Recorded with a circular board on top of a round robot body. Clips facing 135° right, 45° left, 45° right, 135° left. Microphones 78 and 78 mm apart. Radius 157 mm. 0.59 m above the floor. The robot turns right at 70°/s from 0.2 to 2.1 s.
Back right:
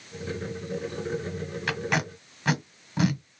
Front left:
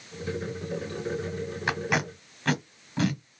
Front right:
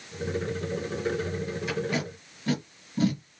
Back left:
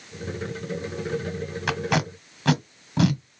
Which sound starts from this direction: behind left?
Tape being pulled, at 1.7 s.